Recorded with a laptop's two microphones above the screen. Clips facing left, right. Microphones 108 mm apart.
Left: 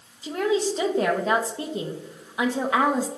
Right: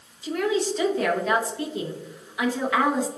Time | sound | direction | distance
0.2 | a woman speaking | 30° left (ahead or behind) | 0.8 m